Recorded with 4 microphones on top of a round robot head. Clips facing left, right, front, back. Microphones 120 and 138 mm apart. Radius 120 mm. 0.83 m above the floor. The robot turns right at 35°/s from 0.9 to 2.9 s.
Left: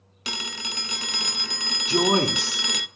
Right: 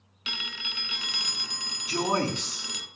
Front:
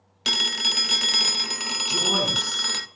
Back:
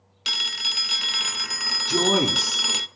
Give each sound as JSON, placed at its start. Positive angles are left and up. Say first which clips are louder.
{"t": 0.2, "sound": "a phone ringing", "louder": "left 6 dB, front 7 dB", "azimuth_deg": 40, "distance_m": 0.6}
{"t": 1.9, "sound": "a man speaking", "louder": "left 5 dB, back 6 dB", "azimuth_deg": 155, "distance_m": 6.0}